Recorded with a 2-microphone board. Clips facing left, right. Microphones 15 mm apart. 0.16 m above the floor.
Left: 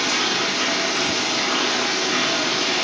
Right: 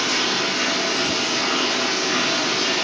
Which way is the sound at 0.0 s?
5° left (ahead or behind).